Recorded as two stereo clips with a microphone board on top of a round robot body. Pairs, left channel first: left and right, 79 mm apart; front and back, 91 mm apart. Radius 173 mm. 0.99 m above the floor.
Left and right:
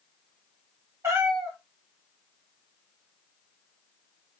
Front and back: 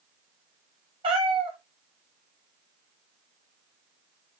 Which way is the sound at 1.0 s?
155° right.